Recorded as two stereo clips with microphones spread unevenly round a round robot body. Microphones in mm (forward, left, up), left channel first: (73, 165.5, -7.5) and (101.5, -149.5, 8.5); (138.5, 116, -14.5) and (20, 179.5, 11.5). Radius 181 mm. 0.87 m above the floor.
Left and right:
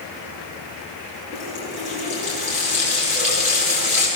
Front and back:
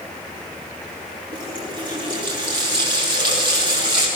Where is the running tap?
155° right, 6.5 m.